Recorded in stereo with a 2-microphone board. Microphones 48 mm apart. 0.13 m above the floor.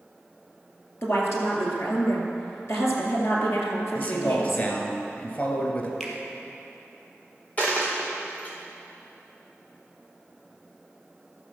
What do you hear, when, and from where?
1.0 s a woman speaking: 60° left (ahead or behind), 2.5 m
4.0 s a man speaking: 40° left (ahead or behind), 1.9 m
6.0 s a finger snap: 5° left (ahead or behind), 2 m
7.6 s a dropped coin: 30° left (ahead or behind), 2.5 m